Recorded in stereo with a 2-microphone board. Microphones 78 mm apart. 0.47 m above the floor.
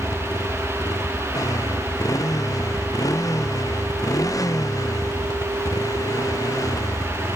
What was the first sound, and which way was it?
A motorcycle, 45° left (ahead or behind).